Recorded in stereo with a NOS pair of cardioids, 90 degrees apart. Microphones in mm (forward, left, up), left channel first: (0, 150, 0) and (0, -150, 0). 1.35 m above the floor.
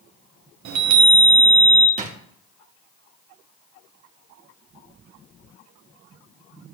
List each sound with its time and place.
0.7 s a chime: 70° right, 1.0 m
2.0 s a drawer: 25° right, 1.5 m